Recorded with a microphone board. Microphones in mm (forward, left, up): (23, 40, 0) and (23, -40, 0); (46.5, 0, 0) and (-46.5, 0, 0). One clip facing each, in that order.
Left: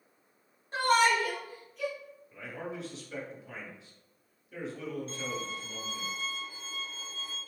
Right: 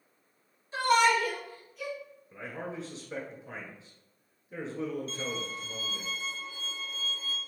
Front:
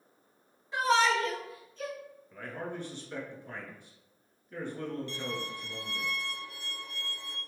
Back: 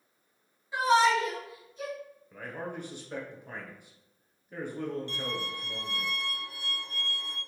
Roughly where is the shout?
Left.